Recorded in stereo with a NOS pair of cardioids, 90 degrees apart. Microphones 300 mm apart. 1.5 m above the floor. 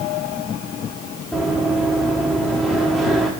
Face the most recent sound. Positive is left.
turn(degrees=0)